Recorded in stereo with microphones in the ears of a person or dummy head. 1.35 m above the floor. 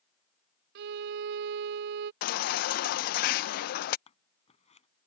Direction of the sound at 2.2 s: 50° left (ahead or behind).